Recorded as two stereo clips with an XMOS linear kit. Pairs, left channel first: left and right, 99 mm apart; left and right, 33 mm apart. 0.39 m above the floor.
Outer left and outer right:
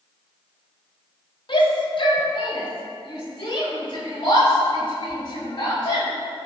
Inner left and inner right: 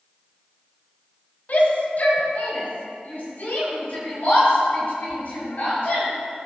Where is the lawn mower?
I don't hear a lawn mower.